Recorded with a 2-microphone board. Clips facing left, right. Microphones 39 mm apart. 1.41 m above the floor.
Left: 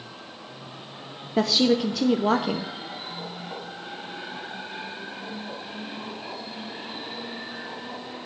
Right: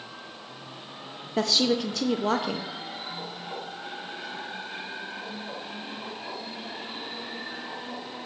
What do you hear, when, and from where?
1.4 s a woman speaking: 5° left (ahead or behind), 0.5 m